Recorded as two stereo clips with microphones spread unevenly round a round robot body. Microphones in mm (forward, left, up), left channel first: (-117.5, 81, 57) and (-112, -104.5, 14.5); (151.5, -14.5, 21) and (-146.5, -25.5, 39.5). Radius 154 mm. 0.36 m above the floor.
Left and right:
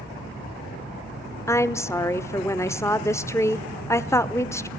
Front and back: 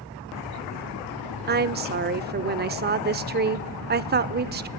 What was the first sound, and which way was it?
A woman speaking, 175° left.